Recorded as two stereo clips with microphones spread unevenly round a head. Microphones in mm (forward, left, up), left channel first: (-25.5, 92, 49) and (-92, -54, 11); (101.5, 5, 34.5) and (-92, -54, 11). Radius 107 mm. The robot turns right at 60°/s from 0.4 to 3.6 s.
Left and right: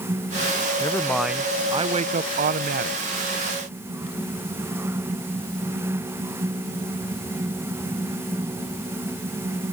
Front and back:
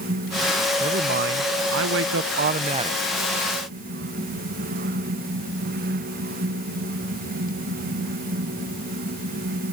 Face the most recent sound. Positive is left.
turn(degrees=-55)